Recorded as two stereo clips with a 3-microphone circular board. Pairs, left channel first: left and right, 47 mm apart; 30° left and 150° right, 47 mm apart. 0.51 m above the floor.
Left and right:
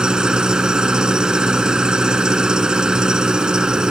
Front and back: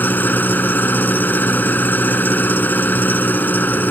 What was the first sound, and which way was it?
An engine running, 15° right.